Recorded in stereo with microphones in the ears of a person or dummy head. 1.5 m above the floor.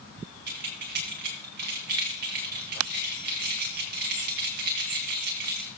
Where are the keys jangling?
55° right (ahead or behind), 1.1 m.